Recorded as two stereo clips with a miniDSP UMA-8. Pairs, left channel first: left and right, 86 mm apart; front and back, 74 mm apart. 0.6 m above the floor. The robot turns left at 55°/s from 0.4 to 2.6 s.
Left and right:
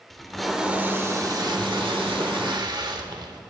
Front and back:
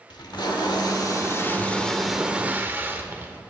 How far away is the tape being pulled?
About 1.3 m.